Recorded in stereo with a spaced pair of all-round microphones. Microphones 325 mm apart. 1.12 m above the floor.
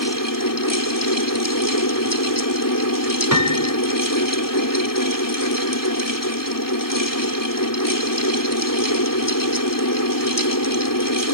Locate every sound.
0.0 s a fan: 75° left (ahead or behind)
3.3 s a piano: 65° right (ahead or behind)